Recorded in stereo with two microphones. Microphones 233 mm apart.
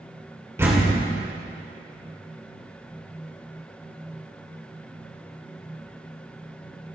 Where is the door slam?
10° right (ahead or behind), 3 m.